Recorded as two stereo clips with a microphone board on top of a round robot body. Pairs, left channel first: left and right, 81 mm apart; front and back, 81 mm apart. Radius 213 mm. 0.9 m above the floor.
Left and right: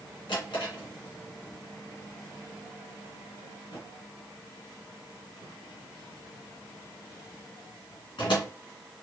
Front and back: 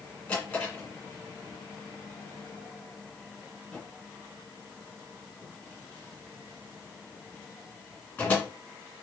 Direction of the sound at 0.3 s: 65° left.